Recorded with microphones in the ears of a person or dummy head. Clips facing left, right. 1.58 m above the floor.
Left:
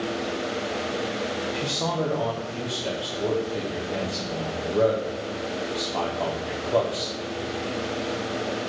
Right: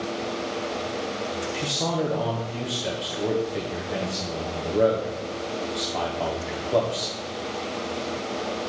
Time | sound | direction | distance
1.5 | a man speaking | 5° right (ahead or behind) | 0.7 m